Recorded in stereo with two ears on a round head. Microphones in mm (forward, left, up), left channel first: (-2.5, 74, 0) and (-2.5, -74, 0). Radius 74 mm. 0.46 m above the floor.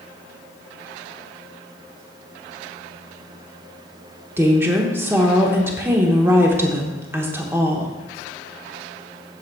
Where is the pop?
I don't hear a pop.